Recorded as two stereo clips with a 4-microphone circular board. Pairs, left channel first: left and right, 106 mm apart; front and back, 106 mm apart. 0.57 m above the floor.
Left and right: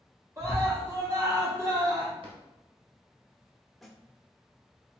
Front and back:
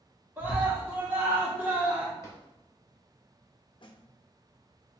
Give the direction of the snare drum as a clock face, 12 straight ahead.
12 o'clock.